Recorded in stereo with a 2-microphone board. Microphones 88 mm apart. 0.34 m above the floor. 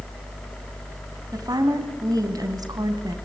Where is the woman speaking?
45° right (ahead or behind), 2 m.